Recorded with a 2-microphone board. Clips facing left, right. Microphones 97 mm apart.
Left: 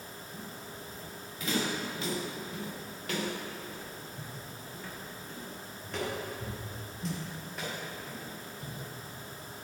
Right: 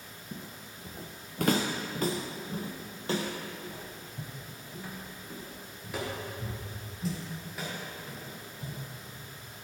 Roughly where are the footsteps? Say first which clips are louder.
Right 2 dB; right.